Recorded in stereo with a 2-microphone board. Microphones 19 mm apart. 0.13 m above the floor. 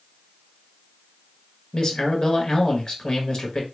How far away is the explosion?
I don't hear an explosion.